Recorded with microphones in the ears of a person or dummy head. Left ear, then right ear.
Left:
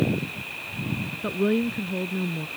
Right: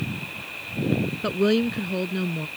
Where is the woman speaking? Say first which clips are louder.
Right 2 dB; 85° right.